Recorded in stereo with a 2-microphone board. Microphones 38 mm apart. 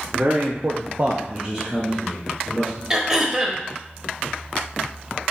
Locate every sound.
0.1 s a man speaking: 50° right (ahead or behind), 0.9 m; by 2.8 s 5° left (ahead or behind), 2.5 m
2.9 s throat clearing: 15° right (ahead or behind), 0.7 m